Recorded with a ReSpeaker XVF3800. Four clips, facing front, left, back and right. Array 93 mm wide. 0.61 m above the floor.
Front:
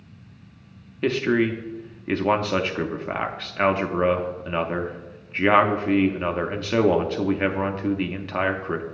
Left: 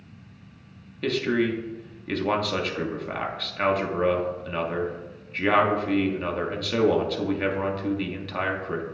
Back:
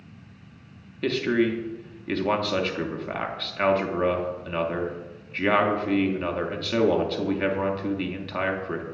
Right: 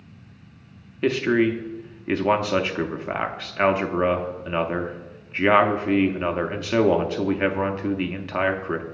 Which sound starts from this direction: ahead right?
A man speaking, at 1.0 s.